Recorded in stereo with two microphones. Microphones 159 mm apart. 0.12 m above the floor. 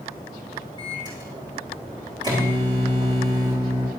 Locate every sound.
0.8 s a microwave: 25° right (ahead or behind), 5 m